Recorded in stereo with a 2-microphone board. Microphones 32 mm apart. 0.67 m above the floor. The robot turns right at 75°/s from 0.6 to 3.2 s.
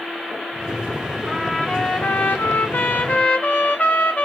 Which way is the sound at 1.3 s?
Straight ahead.